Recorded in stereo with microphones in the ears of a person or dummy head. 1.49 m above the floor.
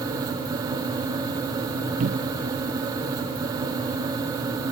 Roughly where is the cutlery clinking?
No cutlery clinking in this recording.